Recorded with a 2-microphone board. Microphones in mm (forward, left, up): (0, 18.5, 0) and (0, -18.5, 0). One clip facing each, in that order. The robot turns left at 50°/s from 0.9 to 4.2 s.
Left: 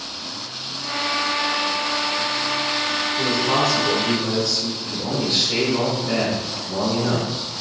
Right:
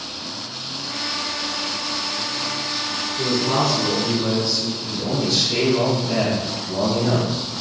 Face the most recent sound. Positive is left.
turn(degrees=25)  # may be behind; listen again after turning